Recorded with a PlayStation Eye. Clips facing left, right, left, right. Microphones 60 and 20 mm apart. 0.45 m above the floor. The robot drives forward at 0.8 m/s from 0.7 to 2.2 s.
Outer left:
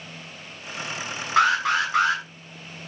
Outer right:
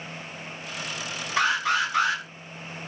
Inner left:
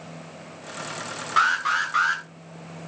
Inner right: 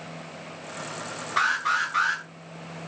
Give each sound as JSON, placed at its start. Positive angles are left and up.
{"t": 1.4, "sound": "an alarm", "side_deg": 50, "distance_m": 7.5}